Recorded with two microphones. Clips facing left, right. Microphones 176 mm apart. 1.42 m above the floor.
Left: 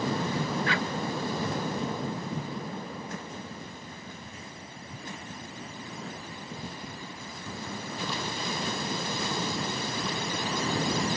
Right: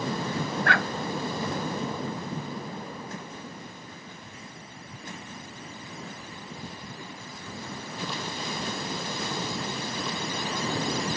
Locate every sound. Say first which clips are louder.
0.7 s a dog barking: right 2 dB; 60° right (ahead or behind)